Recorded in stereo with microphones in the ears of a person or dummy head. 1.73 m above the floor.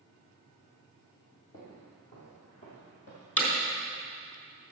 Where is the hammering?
5° left (ahead or behind), 3.5 m.